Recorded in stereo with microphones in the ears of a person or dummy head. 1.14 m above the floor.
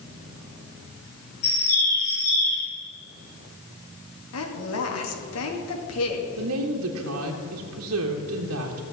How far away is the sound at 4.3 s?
About 2 m.